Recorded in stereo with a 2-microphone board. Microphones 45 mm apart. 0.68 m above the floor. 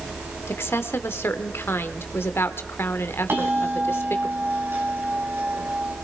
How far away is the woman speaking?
About 1.5 m.